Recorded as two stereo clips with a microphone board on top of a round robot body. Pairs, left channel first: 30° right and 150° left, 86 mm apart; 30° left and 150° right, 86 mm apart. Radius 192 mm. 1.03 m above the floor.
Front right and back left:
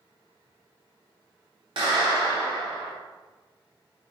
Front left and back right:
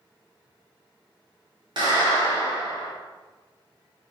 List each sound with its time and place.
1.8 s a clap: 175° left, 3 m